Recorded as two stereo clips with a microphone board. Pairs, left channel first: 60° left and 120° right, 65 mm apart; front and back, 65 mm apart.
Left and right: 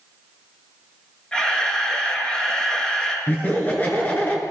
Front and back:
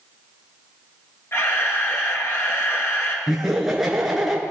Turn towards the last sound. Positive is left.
turn(degrees=95)